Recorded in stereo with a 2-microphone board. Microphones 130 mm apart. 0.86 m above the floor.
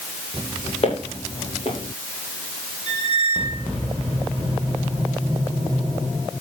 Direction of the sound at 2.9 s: 40° left (ahead or behind).